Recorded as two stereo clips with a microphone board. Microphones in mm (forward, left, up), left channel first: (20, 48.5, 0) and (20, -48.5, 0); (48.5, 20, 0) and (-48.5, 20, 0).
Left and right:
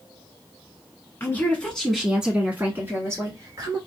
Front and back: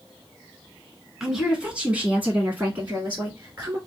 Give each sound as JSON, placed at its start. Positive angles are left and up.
{"t": 1.2, "sound": "a woman speaking", "azimuth_deg": 100, "distance_m": 1.2}